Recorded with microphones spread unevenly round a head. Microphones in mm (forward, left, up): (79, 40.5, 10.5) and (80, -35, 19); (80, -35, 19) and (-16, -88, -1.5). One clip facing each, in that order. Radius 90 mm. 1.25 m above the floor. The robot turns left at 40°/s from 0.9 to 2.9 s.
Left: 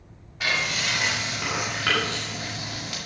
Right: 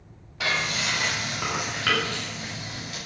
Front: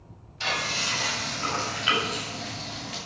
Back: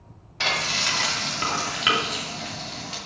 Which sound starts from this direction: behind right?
Frying, at 0.4 s.